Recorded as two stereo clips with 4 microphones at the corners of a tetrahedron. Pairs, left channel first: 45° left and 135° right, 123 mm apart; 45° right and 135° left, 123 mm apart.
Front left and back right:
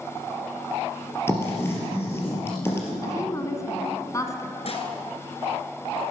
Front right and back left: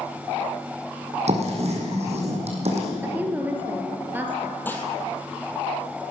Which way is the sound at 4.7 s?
25° left.